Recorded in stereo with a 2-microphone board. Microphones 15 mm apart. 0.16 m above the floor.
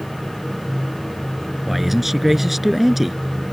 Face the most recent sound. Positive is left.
turn(degrees=-15)  # may be behind; listen again after turning